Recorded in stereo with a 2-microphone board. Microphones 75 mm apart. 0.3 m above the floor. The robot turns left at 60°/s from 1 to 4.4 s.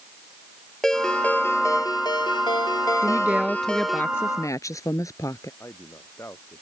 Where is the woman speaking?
145° right; by 5.5 s 135° left.